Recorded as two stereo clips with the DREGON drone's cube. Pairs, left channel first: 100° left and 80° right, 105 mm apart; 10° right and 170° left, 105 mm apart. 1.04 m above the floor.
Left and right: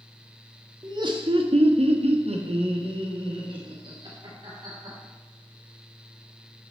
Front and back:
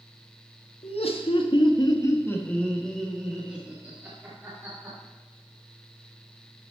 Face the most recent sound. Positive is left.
turn(degrees=-125)